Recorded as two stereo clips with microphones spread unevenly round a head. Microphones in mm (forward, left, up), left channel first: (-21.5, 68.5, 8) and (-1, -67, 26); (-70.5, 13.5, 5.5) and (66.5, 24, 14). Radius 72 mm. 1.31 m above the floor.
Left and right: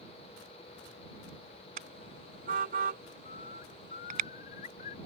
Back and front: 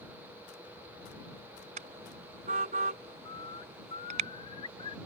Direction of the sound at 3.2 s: 130° left.